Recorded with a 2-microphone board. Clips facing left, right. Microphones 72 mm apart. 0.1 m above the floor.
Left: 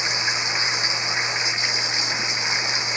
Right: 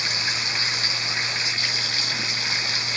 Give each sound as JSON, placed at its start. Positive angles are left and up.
{"t": 0.0, "sound": "running water", "side_deg": 20}